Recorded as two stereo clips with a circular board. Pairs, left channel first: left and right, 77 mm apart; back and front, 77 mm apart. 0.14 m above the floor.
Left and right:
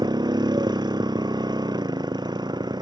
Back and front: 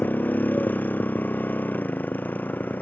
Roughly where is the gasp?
No gasp in this recording.